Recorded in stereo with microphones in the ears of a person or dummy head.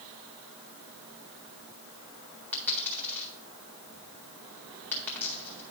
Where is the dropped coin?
10° left (ahead or behind), 1.7 m.